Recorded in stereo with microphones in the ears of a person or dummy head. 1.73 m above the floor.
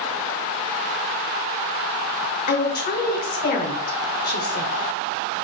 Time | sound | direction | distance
2.5 | a woman speaking | 45° left (ahead or behind) | 0.8 m